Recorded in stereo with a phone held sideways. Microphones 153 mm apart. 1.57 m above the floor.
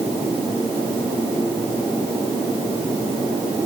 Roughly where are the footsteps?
No footsteps in this recording.